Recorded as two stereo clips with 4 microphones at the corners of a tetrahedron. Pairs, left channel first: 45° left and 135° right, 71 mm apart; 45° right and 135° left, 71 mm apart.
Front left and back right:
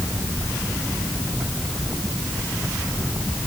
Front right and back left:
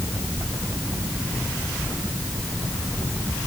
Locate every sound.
Only background noise.